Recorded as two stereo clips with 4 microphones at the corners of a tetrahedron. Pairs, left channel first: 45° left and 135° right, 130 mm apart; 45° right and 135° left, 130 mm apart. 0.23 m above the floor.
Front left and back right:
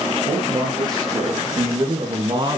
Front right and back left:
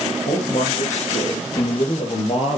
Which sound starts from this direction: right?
A man speaking, at 0.3 s.